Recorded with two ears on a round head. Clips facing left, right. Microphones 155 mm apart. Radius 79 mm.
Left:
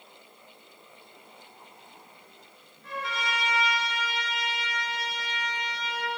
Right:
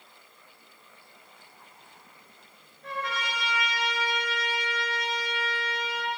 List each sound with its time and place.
2.8 s a trumpet: 55° right (ahead or behind), 5.5 m